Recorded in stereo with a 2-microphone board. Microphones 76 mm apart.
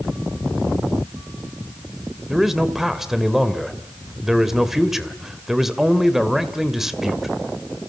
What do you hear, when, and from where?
2.3 s a man speaking: 5° right (ahead or behind), 2 m